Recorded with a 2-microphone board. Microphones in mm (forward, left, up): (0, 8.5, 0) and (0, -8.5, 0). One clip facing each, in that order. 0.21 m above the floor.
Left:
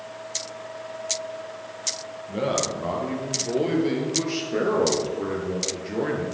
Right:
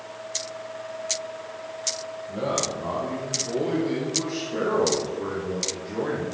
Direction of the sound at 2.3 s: 65° left (ahead or behind).